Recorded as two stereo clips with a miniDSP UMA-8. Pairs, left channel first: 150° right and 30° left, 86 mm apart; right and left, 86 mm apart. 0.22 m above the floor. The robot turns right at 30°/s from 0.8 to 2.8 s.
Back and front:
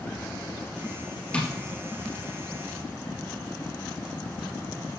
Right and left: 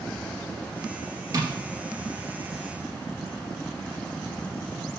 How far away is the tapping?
About 3.5 m.